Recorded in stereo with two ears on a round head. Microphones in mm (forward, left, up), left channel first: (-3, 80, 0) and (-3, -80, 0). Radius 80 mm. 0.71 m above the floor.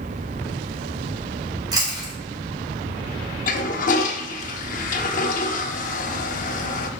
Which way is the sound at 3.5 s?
50° left (ahead or behind).